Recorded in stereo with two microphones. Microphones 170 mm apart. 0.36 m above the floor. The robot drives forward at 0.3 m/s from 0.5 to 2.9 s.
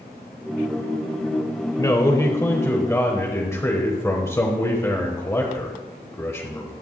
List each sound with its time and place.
1.8 s a man speaking: 20° left (ahead or behind), 1.1 m; by 6.7 s 15° left (ahead or behind), 1.3 m